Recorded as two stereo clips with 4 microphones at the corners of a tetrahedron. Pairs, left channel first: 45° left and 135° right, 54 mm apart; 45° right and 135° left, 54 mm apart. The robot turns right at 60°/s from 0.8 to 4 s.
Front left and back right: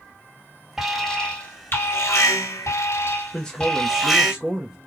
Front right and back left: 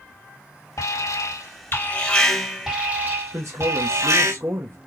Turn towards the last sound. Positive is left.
turn(degrees=150)